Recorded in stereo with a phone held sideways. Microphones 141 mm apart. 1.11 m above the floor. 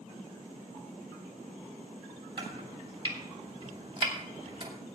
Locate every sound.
2.4 s chopping: 35° right (ahead or behind), 2.5 m